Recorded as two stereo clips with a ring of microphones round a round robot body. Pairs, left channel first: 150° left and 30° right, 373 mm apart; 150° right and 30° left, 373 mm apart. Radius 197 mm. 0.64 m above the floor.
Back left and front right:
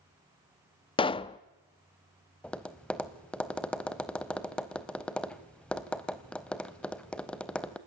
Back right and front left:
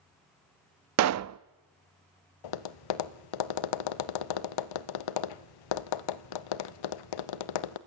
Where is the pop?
75° left, 0.5 m.